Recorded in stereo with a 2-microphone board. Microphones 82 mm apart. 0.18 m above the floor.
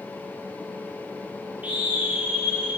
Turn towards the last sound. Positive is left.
turn(degrees=-5)  # may be behind; listen again after turning